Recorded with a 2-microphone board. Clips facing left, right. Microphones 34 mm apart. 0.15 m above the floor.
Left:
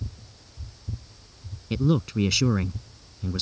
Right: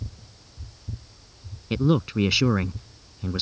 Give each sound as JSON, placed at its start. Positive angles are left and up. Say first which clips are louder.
{"t": 1.7, "sound": "a man speaking", "louder": "right 2 dB", "side_deg": -20}